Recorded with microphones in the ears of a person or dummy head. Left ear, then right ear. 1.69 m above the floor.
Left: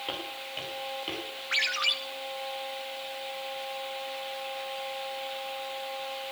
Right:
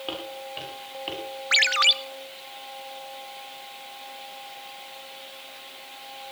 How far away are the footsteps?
About 8 m.